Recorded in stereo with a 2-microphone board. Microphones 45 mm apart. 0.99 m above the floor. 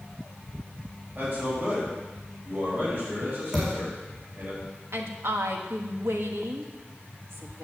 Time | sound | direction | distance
1.1 | a man speaking | 35° right (ahead or behind) | 6 m
3.5 | a thud | 10° right (ahead or behind) | 5.5 m
4.9 | a woman speaking | 65° right (ahead or behind) | 1.8 m